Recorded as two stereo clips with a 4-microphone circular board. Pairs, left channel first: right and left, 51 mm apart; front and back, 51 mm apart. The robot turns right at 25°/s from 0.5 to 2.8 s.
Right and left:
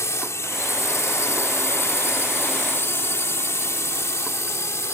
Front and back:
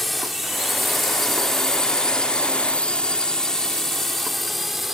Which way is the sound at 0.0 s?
85° right.